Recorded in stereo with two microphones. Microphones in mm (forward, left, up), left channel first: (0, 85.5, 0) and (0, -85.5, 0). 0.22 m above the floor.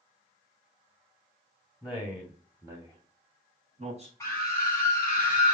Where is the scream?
15° left (ahead or behind), 2.5 m.